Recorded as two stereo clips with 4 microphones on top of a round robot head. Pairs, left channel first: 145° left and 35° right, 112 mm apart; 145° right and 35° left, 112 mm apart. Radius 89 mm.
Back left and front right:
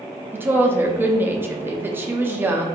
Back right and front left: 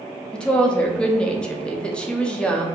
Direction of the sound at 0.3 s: 75° right.